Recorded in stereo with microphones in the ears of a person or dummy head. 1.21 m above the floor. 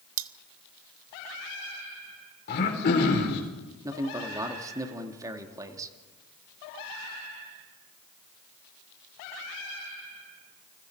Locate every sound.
0.2 s cutlery clinking: 70° right (ahead or behind), 0.9 m
2.5 s throat clearing: 60° left (ahead or behind), 4 m
3.8 s a man speaking: 15° right (ahead or behind), 2 m